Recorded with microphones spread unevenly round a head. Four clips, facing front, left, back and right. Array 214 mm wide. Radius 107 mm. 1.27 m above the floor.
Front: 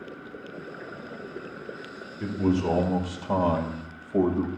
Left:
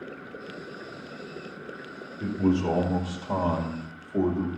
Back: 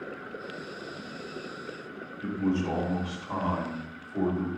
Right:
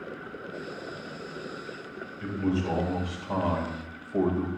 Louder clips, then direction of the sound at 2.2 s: Left 4 dB, front 3 dB; 35° left.